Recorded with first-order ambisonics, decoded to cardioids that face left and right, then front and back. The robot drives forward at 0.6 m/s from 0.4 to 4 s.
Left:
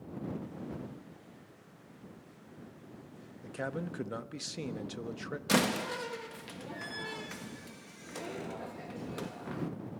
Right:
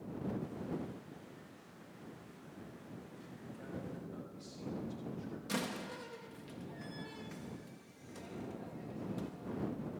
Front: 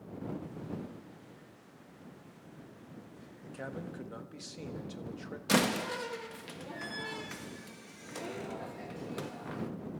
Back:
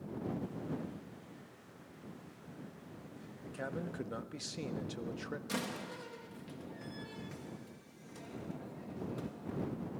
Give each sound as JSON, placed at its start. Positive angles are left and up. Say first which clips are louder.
{"t": 3.4, "sound": "a man speaking", "louder": "left 10 dB, back 1 dB", "azimuth_deg": 85, "distance_m": 1.2}
{"t": 5.5, "sound": "a door slam", "louder": "left 11 dB, front 14 dB", "azimuth_deg": 45, "distance_m": 0.8}